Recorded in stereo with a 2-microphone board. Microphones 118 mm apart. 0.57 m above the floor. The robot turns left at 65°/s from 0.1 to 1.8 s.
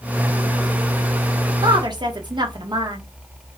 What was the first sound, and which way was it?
A woman speaking, 35° right (ahead or behind).